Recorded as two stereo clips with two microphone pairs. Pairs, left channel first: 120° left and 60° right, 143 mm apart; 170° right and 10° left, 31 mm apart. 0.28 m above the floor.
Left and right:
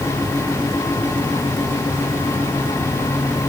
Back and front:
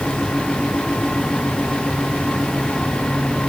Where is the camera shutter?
I don't hear a camera shutter.